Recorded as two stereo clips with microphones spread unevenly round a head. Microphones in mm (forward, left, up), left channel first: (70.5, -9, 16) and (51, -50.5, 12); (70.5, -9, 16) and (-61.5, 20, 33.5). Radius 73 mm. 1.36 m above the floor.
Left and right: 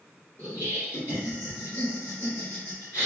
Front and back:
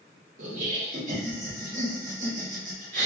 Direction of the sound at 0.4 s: 135° left.